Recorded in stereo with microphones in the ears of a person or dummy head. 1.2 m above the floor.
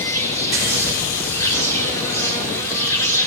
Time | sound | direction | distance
0.0 | an insect | 15° left (ahead or behind) | 2.5 m